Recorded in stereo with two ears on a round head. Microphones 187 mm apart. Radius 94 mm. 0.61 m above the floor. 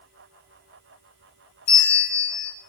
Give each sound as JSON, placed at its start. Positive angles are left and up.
{"t": 1.7, "sound": "a bell", "side_deg": 70, "distance_m": 4.5}